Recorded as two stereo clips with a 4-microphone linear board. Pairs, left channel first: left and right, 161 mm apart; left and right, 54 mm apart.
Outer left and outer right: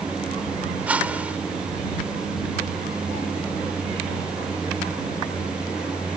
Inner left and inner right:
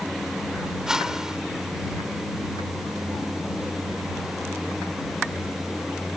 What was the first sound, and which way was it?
A whoosh, 10° right (ahead or behind).